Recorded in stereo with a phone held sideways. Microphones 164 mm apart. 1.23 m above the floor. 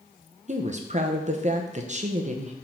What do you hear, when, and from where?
0.5 s a woman speaking: 45° right (ahead or behind), 0.8 m